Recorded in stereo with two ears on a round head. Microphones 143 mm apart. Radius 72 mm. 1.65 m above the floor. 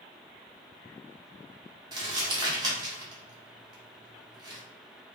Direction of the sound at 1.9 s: 25° right (ahead or behind).